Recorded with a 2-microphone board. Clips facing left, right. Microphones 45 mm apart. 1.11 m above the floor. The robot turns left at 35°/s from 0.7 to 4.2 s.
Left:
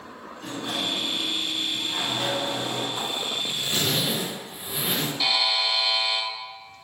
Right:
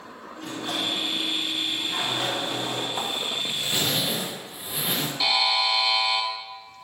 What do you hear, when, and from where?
0.4 s a sliding door: 60° right, 1.8 m; by 2.9 s 135° right, 1.8 m
3.0 s a zipper: 130° right, 1.1 m; by 5.1 s 175° right, 1.1 m
5.2 s a buzzer: centre (ahead or behind), 1.1 m